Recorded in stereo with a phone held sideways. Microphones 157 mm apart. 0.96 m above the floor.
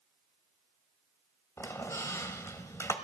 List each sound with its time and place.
1.6 s a squeak: 20° left (ahead or behind), 0.9 m